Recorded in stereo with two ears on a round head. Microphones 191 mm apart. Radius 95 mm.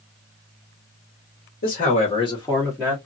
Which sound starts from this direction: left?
A man speaking, at 1.6 s.